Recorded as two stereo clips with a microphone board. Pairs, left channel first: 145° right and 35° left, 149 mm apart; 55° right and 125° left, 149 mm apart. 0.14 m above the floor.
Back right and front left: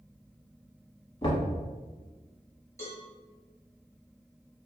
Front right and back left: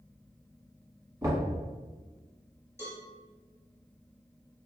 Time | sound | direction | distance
1.2 | knocking | 175° left | 1.1 m
2.8 | a cowbell | 170° left | 1.4 m